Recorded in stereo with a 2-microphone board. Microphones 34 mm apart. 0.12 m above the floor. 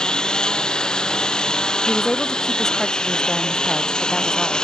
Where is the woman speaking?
15° left (ahead or behind).